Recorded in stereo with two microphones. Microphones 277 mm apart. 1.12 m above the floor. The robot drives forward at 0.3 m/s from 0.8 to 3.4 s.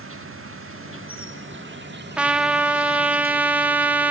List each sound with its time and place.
0.0 s an insect: 50° right (ahead or behind), 1.4 m; by 4.1 s 35° right (ahead or behind), 1.9 m
2.2 s a trumpet: 5° right (ahead or behind), 1.2 m